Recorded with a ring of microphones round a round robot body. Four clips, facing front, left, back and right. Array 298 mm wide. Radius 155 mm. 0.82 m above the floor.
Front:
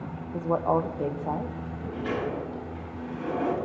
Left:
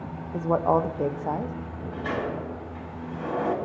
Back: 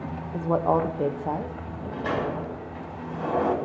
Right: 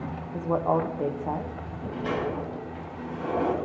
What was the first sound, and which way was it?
A woman speaking, 120° left.